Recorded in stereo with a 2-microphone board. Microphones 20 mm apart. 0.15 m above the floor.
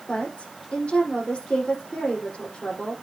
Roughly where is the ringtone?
I don't hear a ringtone.